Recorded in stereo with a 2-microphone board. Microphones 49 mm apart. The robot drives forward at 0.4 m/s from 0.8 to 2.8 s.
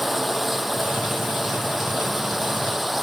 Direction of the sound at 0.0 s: 5° right (ahead or behind).